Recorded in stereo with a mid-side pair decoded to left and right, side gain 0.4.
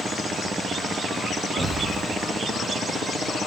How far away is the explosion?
About 3 m.